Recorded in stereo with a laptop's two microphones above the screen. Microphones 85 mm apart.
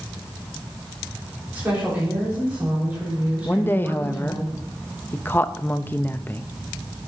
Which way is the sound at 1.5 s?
20° right (ahead or behind).